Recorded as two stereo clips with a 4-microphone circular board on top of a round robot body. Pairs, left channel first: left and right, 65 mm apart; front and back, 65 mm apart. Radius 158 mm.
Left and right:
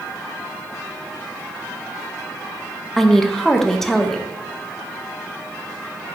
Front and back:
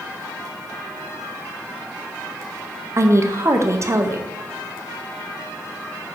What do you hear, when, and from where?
3.0 s a woman speaking: 175° left, 0.9 m